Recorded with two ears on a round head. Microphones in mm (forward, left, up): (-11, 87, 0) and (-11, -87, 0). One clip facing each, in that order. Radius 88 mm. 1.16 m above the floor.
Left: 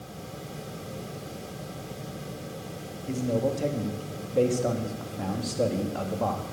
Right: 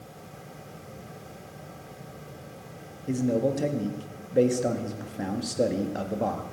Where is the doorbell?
No doorbell in this recording.